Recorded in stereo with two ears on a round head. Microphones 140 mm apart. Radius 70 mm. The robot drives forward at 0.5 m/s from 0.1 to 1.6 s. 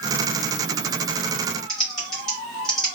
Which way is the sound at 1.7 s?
5° left (ahead or behind).